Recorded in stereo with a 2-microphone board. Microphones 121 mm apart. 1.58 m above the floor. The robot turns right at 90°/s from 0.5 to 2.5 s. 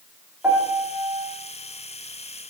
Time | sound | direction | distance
0.4 | a piano | 15° right | 2 m